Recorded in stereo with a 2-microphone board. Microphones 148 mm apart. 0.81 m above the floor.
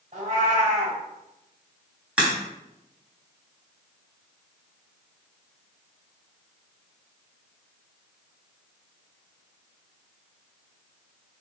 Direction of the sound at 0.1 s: 55° right (ahead or behind).